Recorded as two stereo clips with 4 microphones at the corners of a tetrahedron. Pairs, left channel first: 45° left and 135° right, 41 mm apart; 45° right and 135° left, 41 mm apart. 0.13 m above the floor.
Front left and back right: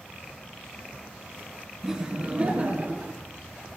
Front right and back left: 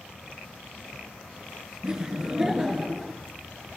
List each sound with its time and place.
1.8 s laughter: 170° left, 1.6 m; by 3.2 s 140° right, 2 m